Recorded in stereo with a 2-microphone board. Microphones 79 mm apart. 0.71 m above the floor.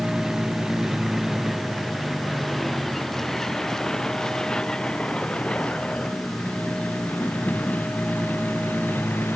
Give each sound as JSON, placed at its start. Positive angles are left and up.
{"t": 0.0, "sound": "a vehicle", "side_deg": -10}